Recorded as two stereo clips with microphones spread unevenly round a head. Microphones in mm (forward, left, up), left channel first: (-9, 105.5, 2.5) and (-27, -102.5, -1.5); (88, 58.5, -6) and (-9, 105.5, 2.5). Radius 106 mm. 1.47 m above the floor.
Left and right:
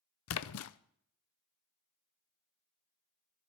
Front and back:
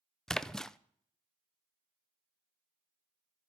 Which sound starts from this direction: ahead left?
A splash, at 0.3 s.